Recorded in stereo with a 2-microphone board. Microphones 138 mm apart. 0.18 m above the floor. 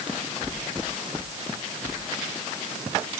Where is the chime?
No chime in this recording.